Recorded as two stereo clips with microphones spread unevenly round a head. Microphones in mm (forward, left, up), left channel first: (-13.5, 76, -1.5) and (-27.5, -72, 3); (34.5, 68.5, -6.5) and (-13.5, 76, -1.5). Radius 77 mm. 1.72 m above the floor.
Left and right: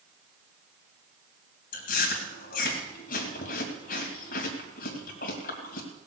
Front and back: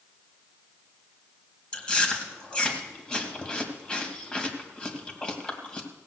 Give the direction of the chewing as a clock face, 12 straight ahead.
10 o'clock.